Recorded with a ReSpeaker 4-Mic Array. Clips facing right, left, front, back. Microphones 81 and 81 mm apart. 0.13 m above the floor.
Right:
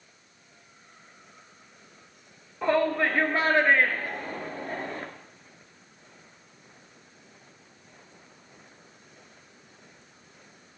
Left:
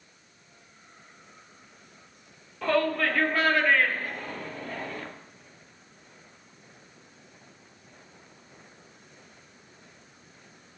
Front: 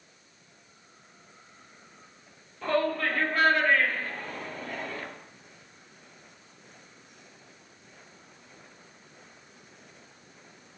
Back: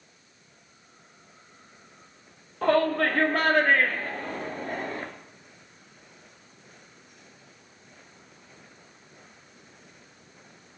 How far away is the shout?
About 3 m.